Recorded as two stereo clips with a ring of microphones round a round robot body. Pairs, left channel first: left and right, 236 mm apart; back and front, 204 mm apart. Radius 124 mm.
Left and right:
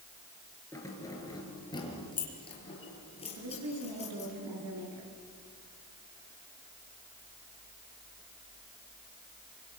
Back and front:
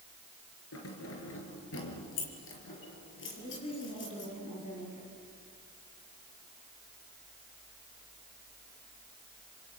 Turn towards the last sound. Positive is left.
turn(degrees=-115)